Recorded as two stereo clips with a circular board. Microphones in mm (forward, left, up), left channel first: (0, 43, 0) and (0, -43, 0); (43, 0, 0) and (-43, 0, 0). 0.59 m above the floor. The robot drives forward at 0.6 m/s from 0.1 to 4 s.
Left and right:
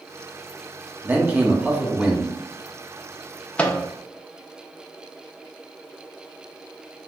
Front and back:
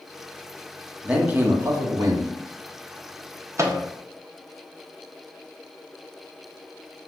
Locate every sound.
1.0 s a man speaking: 125° right, 0.9 m; by 2.3 s 165° right, 1.3 m
3.6 s a microwave: 155° left, 0.5 m; by 3.8 s 165° left, 0.6 m